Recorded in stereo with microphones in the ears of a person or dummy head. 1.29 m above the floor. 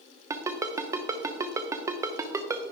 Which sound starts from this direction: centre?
A ringtone, at 0.3 s.